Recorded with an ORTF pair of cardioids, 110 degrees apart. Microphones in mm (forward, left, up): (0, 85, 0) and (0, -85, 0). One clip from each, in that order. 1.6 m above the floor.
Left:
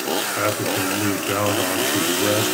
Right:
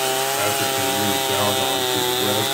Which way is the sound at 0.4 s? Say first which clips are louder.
Right 1 dB; 25° left.